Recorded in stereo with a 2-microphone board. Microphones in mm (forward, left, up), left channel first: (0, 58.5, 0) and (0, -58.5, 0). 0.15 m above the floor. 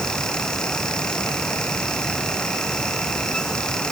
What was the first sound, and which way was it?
Only background noise.